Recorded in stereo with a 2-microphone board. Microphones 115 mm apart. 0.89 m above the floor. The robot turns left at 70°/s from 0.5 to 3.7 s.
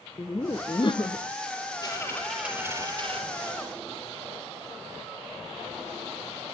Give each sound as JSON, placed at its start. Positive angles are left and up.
{"t": 0.2, "sound": "laughter", "azimuth_deg": 130, "distance_m": 0.7}
{"t": 1.8, "sound": "a dropped coin", "azimuth_deg": 35, "distance_m": 4.5}